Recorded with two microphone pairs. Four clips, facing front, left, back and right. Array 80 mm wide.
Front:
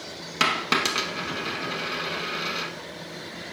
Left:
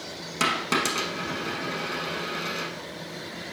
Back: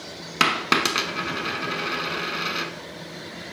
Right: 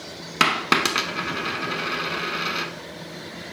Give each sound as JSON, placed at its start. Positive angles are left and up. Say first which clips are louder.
{"t": 0.4, "sound": "a dropped coin", "louder": "right 5 dB, back 3 dB", "azimuth_deg": -130, "distance_m": 0.7}